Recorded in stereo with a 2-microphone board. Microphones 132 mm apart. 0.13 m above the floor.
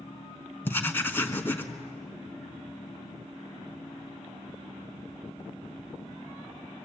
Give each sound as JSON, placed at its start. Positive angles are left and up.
{"t": 0.7, "sound": "writing", "side_deg": 15, "distance_m": 1.6}